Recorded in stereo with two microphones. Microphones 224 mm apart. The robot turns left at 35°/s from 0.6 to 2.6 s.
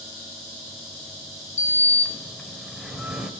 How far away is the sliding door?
About 1.2 m.